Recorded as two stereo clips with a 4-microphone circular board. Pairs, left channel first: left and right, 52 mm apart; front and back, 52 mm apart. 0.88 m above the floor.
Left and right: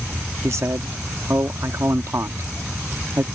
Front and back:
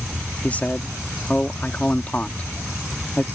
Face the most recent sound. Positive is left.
turn(degrees=-60)